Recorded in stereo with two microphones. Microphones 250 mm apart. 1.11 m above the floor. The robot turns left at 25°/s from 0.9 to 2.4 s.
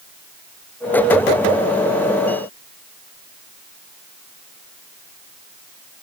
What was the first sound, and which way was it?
Only background noise.